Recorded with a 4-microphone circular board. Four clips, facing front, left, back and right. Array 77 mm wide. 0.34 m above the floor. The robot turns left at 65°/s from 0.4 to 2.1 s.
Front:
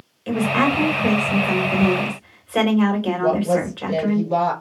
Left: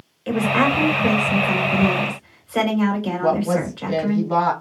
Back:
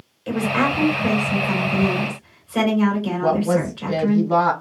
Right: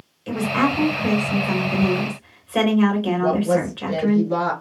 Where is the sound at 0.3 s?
70° left, 1.6 m; by 4.2 s 40° right, 1.6 m.